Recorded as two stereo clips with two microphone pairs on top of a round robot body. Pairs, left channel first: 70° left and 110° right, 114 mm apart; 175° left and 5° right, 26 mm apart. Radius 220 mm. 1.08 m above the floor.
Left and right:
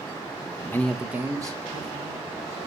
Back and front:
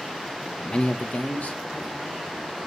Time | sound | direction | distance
0.6 | a man speaking | 125° left | 0.6 m